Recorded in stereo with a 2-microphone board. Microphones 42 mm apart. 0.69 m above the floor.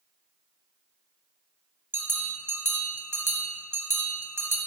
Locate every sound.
1.9 s a bell: 70° right (ahead or behind), 1.0 m